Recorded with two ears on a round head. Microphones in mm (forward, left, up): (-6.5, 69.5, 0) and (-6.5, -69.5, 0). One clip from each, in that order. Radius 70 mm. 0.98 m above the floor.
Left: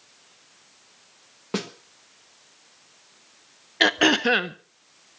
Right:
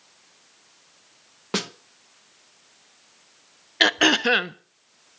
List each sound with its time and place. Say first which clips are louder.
1.5 s a snare drum: right 3 dB; 35° right (ahead or behind), 1.0 m
3.8 s throat clearing: right 1 dB; 20° right (ahead or behind), 0.6 m